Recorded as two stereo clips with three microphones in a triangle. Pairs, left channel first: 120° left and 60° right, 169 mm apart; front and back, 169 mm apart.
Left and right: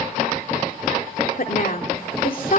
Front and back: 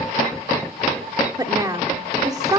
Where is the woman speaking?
115° left, 2 m.